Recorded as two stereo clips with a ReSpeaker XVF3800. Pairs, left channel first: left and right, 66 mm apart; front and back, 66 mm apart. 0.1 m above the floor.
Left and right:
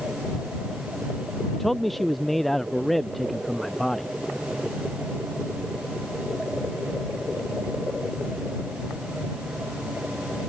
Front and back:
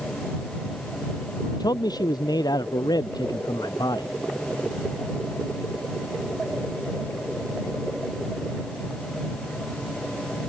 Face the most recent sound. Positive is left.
turn(degrees=5)